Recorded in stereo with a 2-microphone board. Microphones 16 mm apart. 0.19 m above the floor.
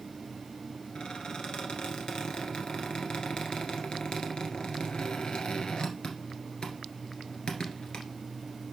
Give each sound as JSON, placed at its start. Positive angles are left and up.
{"t": 0.9, "sound": "a squeak", "side_deg": 65, "distance_m": 1.9}